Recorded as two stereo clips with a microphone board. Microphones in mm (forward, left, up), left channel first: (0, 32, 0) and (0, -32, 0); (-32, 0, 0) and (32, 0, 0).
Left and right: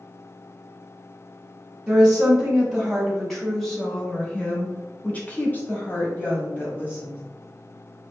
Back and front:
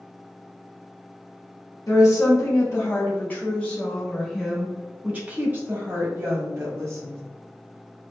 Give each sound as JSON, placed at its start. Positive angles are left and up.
{"t": 1.9, "sound": "a woman speaking", "azimuth_deg": -165, "distance_m": 1.5}